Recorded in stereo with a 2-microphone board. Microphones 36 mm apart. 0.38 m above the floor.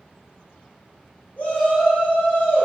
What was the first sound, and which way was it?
A shout, 40° left (ahead or behind).